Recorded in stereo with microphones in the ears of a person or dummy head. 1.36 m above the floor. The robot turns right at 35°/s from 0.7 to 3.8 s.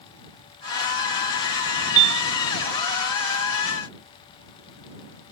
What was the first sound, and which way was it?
A piano, 70° right (ahead or behind).